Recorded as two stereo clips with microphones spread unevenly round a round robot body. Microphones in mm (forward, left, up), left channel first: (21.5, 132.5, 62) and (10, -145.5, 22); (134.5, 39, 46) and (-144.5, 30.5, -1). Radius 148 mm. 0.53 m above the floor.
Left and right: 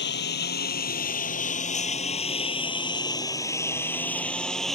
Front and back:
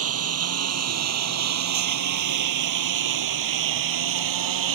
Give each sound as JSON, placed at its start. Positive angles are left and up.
{"t": 0.0, "sound": "a lawn mower", "azimuth_deg": 140}